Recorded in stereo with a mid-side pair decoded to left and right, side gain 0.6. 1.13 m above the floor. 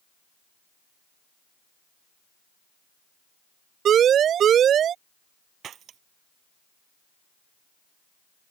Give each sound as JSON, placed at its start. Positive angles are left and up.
{"t": 3.9, "sound": "a siren", "azimuth_deg": -50}
{"t": 5.6, "sound": "breaking glass", "azimuth_deg": -50}